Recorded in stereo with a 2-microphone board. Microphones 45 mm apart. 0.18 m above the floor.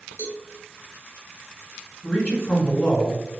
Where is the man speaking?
15° left (ahead or behind), 1.6 m.